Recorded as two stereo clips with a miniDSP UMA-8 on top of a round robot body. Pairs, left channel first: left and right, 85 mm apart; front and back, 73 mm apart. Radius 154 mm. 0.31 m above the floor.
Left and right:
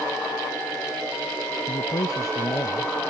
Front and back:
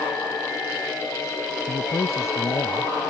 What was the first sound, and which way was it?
A man speaking, 45° left.